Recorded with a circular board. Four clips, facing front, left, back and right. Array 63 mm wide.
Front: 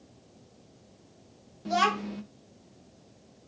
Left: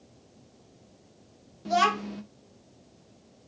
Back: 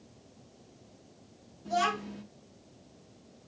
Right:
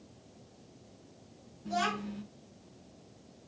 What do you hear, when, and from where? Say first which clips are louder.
1.6 s a child speaking: left 9 dB, front 4 dB; 50° left, 0.5 m